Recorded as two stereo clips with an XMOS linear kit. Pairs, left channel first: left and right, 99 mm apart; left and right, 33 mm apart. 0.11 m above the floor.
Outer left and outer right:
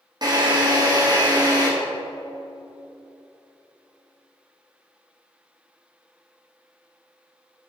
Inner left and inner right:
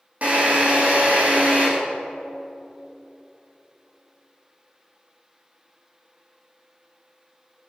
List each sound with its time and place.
0.2 s a drill: 45° right (ahead or behind), 5 m